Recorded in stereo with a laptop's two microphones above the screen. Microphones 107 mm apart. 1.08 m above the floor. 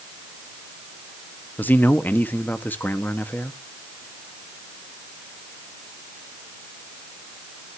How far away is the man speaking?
About 1.5 m.